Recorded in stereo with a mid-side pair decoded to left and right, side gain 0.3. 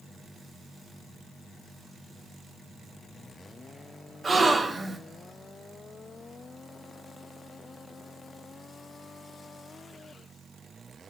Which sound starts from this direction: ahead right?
A gasp, at 4.2 s.